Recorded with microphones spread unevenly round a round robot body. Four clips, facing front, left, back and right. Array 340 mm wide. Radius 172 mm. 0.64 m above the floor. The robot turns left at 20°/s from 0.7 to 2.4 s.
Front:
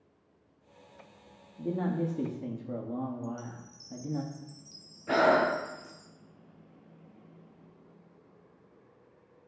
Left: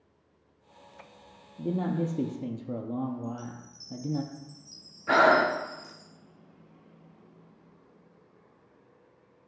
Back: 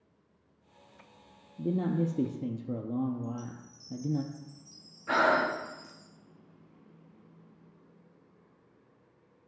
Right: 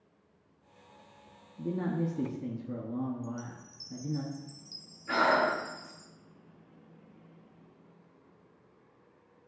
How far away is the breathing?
About 0.9 m.